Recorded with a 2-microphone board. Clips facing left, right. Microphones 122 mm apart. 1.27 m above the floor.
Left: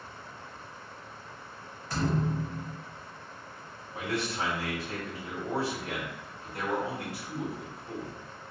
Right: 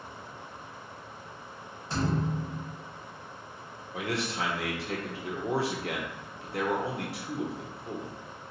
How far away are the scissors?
No scissors in this recording.